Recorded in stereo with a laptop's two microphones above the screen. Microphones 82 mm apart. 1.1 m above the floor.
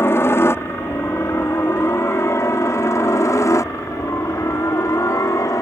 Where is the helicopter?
35° left (ahead or behind); by 5.6 s 45° left (ahead or behind).